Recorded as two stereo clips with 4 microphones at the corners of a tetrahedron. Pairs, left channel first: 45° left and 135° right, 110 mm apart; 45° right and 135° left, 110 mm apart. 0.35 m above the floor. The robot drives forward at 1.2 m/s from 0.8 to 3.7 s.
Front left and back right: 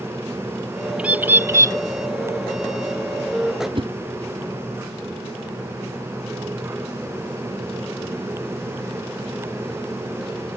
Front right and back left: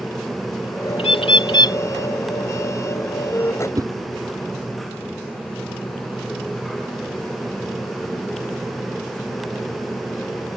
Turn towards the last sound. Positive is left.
turn(degrees=-170)